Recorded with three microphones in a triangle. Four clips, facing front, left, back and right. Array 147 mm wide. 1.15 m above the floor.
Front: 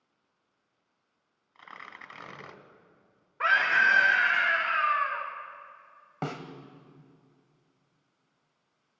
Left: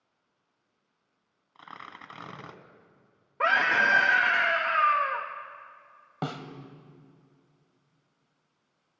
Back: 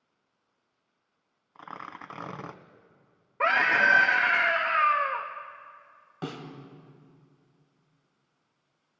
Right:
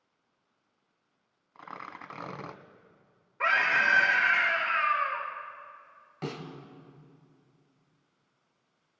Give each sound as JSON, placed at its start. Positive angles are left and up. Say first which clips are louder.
{"t": 1.6, "sound": "tearing paper", "louder": "right 2 dB, back 6 dB", "azimuth_deg": -165, "distance_m": 1.2}
{"t": 3.4, "sound": "a scream", "louder": "left 3 dB, back 1 dB", "azimuth_deg": 140, "distance_m": 1.4}
{"t": 6.2, "sound": "a snare drum", "louder": "left 3 dB, front 2 dB", "azimuth_deg": 45, "distance_m": 1.7}